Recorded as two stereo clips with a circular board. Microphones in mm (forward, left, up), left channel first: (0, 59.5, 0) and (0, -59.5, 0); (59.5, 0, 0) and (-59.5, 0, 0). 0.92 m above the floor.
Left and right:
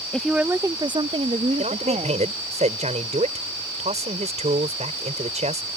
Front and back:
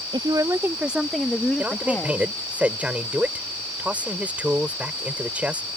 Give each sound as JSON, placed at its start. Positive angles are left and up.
{"t": 0.1, "sound": "a woman speaking", "azimuth_deg": 170}
{"t": 1.6, "sound": "a man speaking", "azimuth_deg": -100}